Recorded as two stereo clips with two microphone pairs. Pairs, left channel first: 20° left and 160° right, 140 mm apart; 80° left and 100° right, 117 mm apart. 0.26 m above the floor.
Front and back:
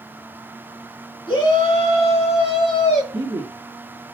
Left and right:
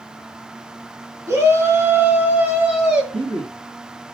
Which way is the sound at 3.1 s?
105° right.